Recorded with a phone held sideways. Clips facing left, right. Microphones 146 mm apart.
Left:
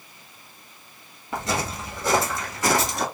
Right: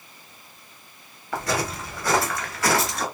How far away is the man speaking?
I don't hear a man speaking.